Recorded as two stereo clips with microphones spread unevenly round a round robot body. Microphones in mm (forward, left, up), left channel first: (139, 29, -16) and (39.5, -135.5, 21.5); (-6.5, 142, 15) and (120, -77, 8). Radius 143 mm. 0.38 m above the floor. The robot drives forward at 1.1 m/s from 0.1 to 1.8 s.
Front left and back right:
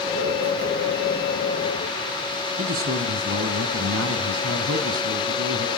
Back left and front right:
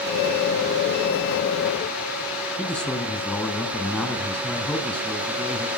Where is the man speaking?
155° right, 3 m.